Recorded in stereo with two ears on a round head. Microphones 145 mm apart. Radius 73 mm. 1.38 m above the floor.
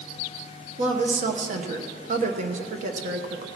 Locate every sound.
0.8 s a woman speaking: 50° right (ahead or behind), 1.2 m